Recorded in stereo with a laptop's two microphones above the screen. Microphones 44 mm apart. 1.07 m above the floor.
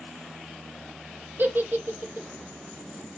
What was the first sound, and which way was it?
A giggle, 50° right (ahead or behind).